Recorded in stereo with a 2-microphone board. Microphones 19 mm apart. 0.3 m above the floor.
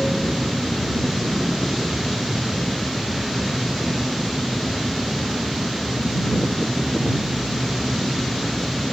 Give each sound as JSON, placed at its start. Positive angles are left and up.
{"t": 0.0, "sound": "an aircraft", "side_deg": -20}